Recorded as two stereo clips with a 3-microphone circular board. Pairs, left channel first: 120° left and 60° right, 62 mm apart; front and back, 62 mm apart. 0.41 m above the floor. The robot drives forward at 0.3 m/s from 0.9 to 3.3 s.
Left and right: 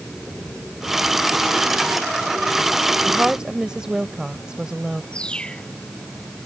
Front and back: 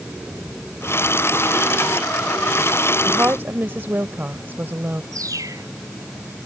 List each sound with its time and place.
3.1 s a woman speaking: 135° right
5.1 s a bird: 165° right